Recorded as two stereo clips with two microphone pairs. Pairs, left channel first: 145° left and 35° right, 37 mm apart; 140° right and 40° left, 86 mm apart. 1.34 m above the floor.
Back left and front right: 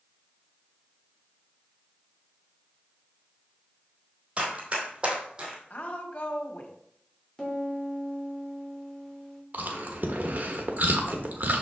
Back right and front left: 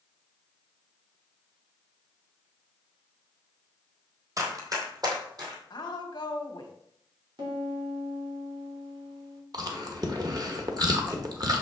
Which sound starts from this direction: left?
A piano, at 7.4 s.